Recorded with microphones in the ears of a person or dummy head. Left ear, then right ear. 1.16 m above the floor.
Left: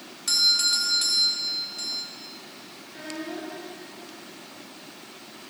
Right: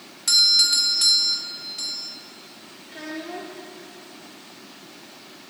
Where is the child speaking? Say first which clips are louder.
Right 2 dB; 75° right (ahead or behind), 2 m.